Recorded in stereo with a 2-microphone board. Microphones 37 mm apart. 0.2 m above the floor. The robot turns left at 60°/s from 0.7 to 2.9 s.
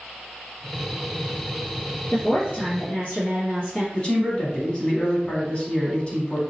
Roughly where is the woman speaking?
Left.